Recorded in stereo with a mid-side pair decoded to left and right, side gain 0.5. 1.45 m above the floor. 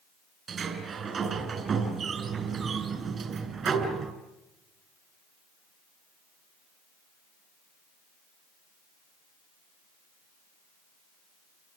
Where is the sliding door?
45° right, 6 m.